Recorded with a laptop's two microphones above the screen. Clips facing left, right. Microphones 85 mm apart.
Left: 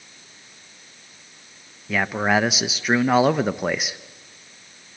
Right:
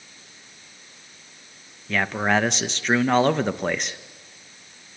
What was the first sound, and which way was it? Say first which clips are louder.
A man speaking: left 1 dB; 5° left (ahead or behind).